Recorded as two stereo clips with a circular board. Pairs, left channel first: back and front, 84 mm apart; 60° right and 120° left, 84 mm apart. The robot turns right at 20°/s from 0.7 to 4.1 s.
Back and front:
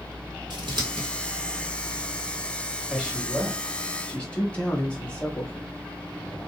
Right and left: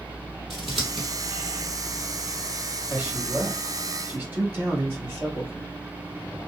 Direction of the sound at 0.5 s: 30° left.